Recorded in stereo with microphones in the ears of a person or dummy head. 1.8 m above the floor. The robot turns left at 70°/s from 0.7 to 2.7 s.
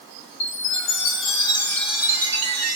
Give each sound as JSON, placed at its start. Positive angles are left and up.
{"t": 0.4, "sound": "a chime", "azimuth_deg": 90, "distance_m": 2.5}